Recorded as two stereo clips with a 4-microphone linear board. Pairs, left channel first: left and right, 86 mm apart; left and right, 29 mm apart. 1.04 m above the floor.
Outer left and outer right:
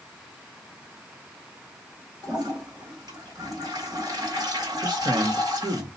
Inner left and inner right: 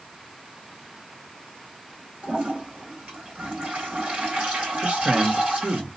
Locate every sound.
2.2 s a toilet flushing: 55° right (ahead or behind), 2 m
4.8 s a man speaking: 60° right (ahead or behind), 1.4 m